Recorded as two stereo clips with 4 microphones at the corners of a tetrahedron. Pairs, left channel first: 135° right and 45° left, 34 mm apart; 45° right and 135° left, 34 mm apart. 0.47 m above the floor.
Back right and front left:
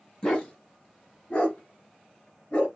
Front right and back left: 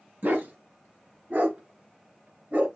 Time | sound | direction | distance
0.2 | a dog barking | 160° left | 1.6 m